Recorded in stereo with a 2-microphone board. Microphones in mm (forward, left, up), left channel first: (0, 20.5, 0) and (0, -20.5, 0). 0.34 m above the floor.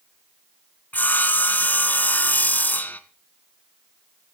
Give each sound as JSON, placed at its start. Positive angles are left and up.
{"t": 0.9, "sound": "sawing", "side_deg": 40, "distance_m": 0.8}